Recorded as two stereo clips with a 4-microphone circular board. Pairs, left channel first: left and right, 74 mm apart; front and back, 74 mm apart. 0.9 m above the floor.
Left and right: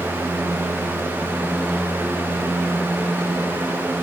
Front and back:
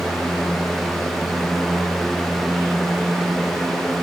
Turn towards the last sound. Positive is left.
No sound to turn to.